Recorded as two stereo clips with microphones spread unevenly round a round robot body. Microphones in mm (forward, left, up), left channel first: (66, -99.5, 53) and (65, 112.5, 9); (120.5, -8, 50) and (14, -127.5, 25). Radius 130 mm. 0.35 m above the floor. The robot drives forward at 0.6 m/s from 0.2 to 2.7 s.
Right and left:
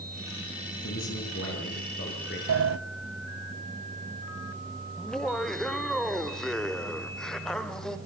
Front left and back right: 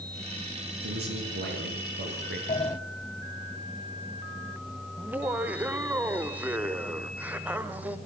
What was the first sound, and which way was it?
A man speaking, 135° right.